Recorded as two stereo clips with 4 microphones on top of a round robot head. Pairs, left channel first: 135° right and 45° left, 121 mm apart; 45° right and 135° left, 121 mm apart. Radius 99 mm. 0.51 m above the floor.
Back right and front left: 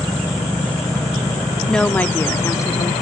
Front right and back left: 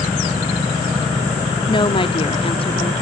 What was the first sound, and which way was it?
A woman speaking, 50° right.